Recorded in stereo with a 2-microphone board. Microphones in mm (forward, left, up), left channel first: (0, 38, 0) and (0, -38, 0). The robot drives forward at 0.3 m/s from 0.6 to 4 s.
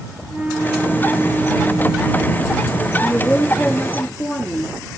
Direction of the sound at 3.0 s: 25° left (ahead or behind).